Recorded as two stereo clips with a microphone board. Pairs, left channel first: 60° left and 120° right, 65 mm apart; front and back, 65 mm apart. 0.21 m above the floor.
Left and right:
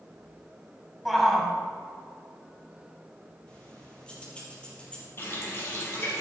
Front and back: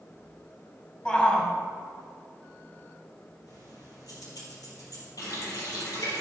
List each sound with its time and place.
1.1 s a shout: 25° right, 1.1 m
3.5 s keys jangling: 10° right, 4.5 m
5.2 s a running tap: 10° left, 4 m